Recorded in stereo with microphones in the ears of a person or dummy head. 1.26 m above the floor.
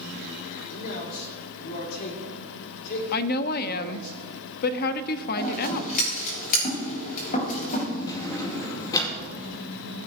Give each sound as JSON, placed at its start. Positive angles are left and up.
{"t": 0.7, "sound": "a man speaking", "side_deg": 50, "distance_m": 4.0}
{"t": 3.1, "sound": "a woman speaking", "side_deg": 50, "distance_m": 0.6}
{"t": 5.4, "sound": "scissors", "side_deg": 40, "distance_m": 5.0}
{"t": 8.1, "sound": "a drawer", "side_deg": 20, "distance_m": 2.0}